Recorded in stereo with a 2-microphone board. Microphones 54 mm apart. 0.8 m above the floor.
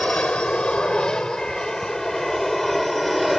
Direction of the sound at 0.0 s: 20° left (ahead or behind).